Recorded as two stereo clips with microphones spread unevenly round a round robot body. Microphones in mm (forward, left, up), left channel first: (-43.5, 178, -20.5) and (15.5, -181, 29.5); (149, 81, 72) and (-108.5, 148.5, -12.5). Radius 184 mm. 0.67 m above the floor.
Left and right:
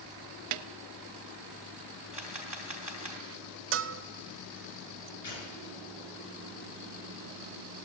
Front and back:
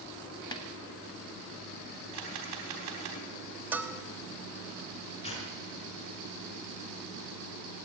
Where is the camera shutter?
165° right, 3.5 m.